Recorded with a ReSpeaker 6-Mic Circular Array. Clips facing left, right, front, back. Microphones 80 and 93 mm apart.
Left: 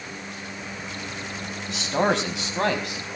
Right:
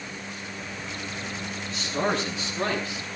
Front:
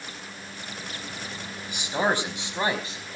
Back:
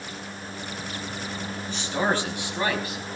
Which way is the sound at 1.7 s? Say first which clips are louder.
Left 4 dB, even; 75° left.